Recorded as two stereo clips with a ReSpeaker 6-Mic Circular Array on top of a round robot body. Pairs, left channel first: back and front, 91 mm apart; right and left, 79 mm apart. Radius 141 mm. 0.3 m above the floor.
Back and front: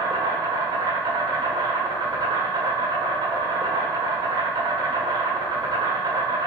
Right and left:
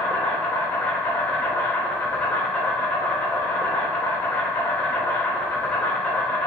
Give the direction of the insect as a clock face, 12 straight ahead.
1 o'clock.